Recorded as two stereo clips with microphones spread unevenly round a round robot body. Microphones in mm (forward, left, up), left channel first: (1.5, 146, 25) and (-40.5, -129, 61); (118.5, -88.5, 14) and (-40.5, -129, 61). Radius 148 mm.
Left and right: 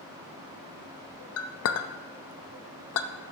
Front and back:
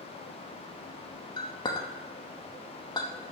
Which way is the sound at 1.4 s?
65° left.